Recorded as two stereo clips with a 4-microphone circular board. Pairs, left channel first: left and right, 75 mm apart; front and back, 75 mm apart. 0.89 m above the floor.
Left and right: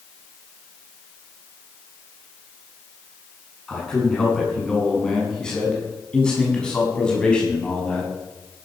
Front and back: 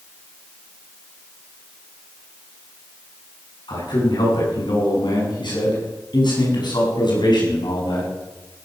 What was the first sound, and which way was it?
A man speaking, 10° left.